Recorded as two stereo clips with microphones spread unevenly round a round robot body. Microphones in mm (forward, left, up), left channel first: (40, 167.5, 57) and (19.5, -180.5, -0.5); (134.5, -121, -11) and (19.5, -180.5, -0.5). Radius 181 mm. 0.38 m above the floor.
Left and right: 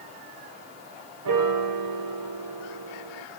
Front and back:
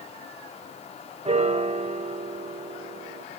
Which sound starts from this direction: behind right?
A piano, at 1.2 s.